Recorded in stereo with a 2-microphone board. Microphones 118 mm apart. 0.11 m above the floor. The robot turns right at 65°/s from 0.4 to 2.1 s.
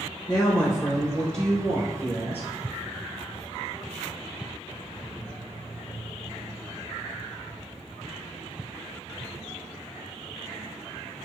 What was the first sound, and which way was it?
A woman speaking, 105° left.